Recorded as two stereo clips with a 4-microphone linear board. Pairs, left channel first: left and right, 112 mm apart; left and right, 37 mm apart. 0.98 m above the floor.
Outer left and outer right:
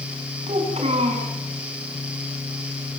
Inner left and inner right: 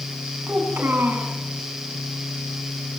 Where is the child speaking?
70° right (ahead or behind), 7 m.